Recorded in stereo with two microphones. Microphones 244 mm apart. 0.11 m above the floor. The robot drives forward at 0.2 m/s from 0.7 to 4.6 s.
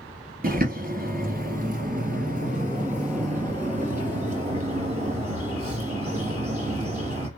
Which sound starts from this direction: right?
A bird, at 0.4 s.